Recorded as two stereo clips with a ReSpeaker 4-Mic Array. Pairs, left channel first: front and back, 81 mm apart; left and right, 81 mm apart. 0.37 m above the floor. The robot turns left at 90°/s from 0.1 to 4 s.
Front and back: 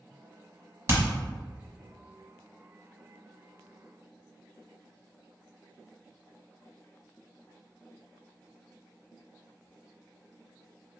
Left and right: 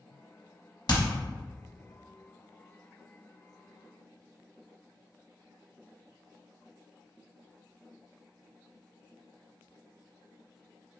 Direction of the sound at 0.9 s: 125° left.